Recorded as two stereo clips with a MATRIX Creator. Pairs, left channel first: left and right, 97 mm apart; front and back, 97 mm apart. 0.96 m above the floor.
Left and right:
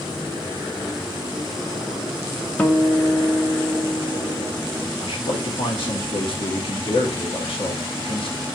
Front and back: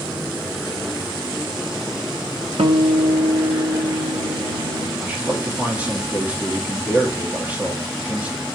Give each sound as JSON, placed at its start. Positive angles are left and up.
{"t": 2.6, "sound": "a guitar", "azimuth_deg": 165, "distance_m": 0.8}
{"t": 5.0, "sound": "a man speaking", "azimuth_deg": 105, "distance_m": 2.0}